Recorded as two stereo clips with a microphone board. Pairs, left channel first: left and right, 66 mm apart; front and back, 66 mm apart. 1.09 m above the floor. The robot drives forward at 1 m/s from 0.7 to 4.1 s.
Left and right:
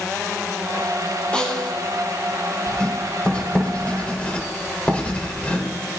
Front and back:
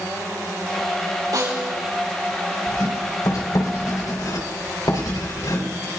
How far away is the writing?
About 4.5 m.